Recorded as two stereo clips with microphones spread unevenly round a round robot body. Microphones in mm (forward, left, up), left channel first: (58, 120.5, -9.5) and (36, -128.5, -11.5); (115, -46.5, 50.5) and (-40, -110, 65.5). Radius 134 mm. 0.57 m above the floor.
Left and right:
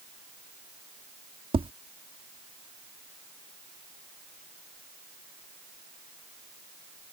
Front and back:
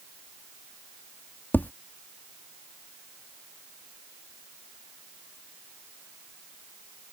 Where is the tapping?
45° right.